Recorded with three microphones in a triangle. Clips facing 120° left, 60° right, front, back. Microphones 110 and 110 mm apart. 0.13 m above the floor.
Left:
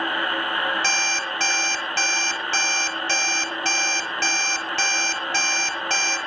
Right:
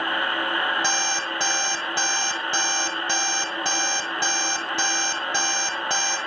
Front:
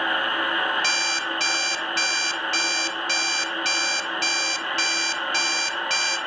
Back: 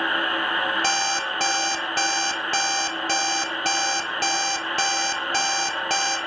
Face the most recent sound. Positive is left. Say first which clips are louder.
# even, back 3 dB
turn(degrees=-135)